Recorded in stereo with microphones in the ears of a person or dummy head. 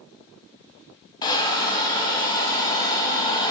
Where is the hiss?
20° left (ahead or behind), 0.8 m.